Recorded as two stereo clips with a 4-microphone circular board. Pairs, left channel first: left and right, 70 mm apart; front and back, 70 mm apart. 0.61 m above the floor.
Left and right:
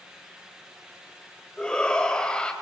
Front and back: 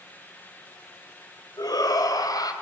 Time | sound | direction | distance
1.6 | a shout | 15° left | 4 m